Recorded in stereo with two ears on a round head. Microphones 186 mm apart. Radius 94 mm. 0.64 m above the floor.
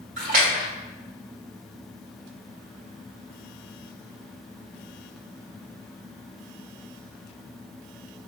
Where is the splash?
40° right (ahead or behind), 1.7 m.